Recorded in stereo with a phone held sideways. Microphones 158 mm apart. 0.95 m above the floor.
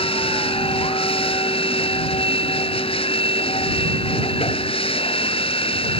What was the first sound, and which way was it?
A machine running, 35° left (ahead or behind).